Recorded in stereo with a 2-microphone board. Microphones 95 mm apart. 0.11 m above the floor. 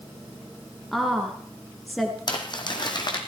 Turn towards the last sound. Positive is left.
turn(degrees=50)  # may be behind; listen again after turning